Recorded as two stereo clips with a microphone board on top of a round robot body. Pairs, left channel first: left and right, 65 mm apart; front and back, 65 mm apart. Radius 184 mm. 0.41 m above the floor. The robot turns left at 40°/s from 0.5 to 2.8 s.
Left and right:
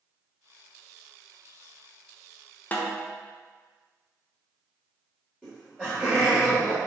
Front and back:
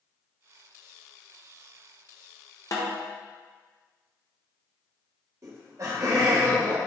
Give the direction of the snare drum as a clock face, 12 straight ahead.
11 o'clock.